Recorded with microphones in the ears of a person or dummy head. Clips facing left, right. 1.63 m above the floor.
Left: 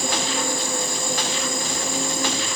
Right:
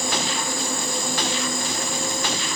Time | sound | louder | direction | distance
0.0 | an insect | left 1 dB | 50° left (ahead or behind) | 5.5 m